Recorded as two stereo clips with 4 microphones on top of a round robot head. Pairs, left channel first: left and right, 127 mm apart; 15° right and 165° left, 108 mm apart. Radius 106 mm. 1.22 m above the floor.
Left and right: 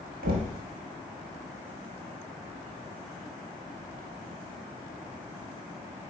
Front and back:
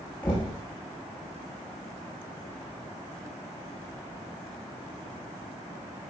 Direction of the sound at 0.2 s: 90° right.